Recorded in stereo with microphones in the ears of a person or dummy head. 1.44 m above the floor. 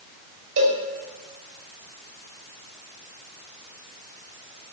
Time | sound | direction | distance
0.6 | a cowbell | 75° right (ahead or behind) | 3 m